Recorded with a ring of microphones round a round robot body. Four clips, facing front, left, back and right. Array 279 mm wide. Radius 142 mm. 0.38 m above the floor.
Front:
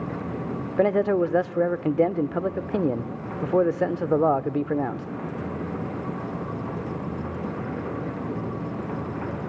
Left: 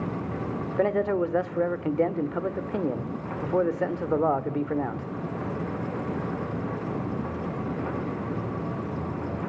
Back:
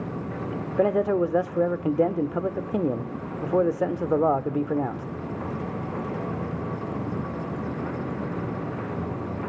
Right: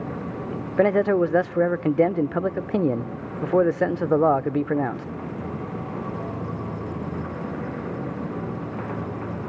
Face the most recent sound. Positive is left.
turn(degrees=-75)